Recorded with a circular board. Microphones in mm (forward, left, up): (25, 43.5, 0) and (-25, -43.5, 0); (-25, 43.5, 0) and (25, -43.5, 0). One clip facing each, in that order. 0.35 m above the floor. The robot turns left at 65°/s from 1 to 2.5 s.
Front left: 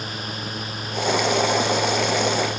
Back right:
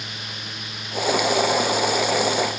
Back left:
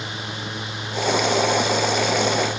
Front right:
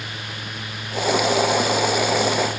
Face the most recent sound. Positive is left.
No sound to turn to.